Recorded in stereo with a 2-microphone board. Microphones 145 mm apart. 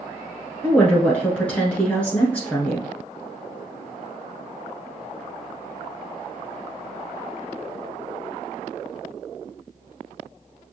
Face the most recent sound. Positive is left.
turn(degrees=10)  # may be behind; listen again after turning